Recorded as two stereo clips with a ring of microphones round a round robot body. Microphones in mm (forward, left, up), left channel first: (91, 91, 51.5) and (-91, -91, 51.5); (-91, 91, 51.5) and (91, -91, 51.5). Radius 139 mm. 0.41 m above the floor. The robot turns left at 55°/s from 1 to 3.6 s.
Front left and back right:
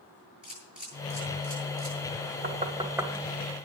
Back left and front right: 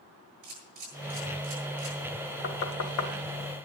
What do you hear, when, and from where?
0.4 s a camera shutter: 50° right, 9 m; by 2.0 s 100° right, 9 m
2.4 s knocking: 175° left, 1.4 m; by 3.1 s 135° left, 1.4 m